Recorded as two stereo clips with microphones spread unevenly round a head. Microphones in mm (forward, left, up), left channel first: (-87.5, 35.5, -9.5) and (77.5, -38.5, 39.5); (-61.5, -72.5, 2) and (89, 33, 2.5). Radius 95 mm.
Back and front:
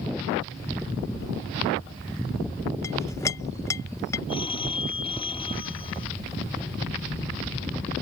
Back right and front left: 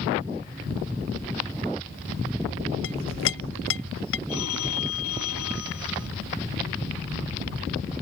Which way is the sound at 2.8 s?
130° right.